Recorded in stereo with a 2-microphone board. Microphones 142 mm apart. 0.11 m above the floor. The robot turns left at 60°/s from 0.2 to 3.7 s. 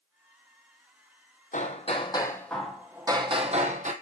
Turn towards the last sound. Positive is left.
turn(degrees=-65)